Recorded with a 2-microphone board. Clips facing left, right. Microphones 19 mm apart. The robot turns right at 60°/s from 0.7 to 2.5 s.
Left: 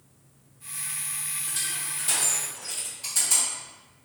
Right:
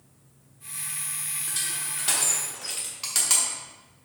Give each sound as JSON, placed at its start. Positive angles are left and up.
{"t": 1.5, "sound": "crushing", "side_deg": -10, "distance_m": 1.0}